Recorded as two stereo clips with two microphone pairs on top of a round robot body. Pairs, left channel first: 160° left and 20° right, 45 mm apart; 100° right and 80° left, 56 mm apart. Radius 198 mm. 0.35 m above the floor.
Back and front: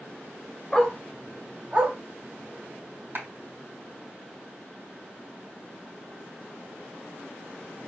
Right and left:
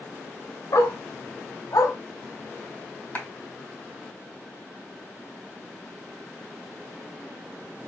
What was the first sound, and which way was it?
A dog barking, 115° right.